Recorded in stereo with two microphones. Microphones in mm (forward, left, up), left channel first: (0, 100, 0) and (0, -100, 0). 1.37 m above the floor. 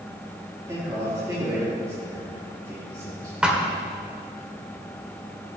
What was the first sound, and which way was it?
A man speaking, 20° right (ahead or behind).